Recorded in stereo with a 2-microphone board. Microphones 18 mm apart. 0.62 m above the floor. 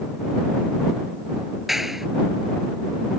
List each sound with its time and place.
1.7 s a clap: 15° right (ahead or behind)